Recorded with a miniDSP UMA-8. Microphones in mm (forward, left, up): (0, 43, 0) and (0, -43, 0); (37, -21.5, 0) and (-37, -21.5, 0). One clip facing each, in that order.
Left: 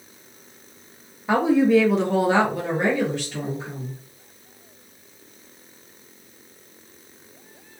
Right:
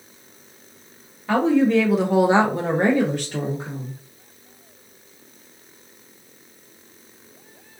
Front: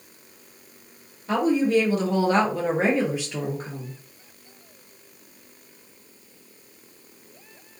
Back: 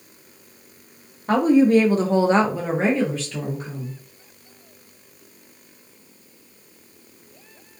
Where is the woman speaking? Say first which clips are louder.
Even, back 5 dB; 160° left, 0.8 m; by 3.9 s 60° right, 1.0 m.